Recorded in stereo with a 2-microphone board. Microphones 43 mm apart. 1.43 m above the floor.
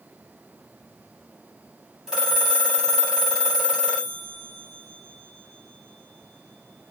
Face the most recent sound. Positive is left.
turn(degrees=-10)  # may be behind; listen again after turning